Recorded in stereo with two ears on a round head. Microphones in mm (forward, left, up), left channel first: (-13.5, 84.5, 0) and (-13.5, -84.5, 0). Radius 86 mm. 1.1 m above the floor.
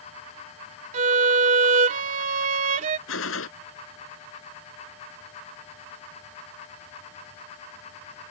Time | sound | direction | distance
0.9 | a violin | 40° right (ahead or behind) | ?
3.1 | a gunshot | 85° left | ?